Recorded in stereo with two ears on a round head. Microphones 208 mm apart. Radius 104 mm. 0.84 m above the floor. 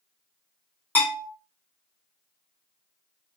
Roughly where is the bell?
Centre.